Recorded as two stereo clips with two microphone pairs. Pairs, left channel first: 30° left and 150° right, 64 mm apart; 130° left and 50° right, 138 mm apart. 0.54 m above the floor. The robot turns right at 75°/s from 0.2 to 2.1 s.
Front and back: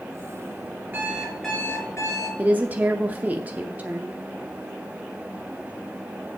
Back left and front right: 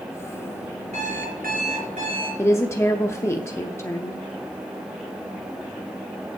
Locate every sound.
0.9 s an alarm clock: 85° right, 5 m; by 2.3 s straight ahead, 5 m
2.4 s a woman speaking: straight behind, 0.6 m